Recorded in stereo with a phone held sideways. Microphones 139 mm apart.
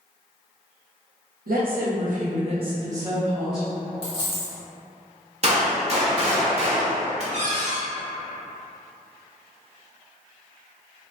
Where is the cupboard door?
45° right (ahead or behind), 0.7 m.